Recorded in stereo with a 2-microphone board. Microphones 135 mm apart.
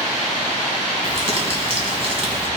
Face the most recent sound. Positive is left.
turn(degrees=-45)  # may be behind; listen again after turning